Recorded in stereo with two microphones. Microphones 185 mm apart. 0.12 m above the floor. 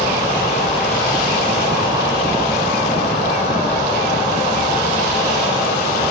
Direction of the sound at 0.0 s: 35° left (ahead or behind).